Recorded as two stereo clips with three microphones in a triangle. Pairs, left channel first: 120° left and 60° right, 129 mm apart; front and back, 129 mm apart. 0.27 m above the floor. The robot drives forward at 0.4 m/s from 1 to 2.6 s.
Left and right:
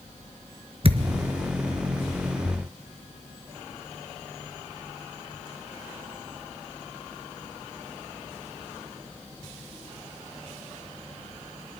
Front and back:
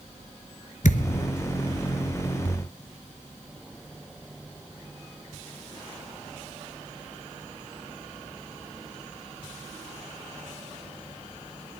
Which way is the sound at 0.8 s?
15° right.